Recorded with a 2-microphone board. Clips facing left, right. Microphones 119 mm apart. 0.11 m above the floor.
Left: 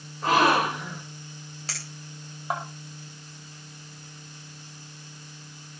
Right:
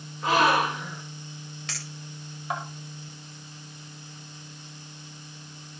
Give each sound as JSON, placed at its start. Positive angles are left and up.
{"t": 0.2, "sound": "a gasp", "side_deg": 45, "distance_m": 10.0}
{"t": 1.7, "sound": "a clink", "side_deg": 35, "distance_m": 8.5}